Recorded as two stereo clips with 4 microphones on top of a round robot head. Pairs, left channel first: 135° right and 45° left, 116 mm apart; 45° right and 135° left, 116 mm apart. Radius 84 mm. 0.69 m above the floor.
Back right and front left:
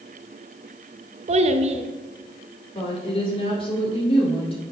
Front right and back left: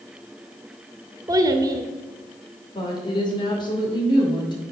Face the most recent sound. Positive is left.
turn(degrees=-95)